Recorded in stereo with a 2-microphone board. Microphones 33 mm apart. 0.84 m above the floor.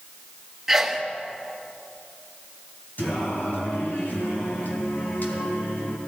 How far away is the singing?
About 2.5 m.